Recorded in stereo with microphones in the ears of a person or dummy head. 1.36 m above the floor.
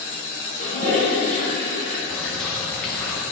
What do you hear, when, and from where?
0.6 s a toilet flushing: 45° right (ahead or behind), 2 m
2.1 s a bird: centre (ahead or behind), 0.9 m